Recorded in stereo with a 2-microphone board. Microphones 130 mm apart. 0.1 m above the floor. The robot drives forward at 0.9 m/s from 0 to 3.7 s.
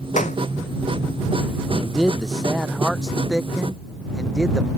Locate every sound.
0.2 s a clap: 70° left (ahead or behind)
1.8 s a man speaking: centre (ahead or behind)